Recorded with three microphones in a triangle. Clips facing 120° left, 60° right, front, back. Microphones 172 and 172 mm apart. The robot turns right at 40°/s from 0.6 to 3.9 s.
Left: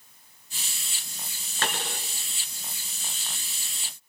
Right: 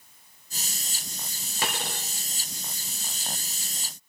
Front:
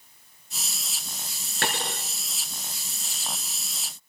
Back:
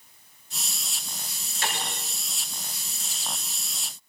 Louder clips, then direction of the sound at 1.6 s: Even, front 3 dB; 15° left.